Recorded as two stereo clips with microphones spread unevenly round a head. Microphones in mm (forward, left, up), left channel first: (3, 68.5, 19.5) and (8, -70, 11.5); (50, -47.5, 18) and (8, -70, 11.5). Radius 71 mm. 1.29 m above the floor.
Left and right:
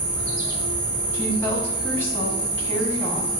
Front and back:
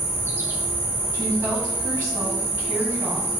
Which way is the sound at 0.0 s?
115° right.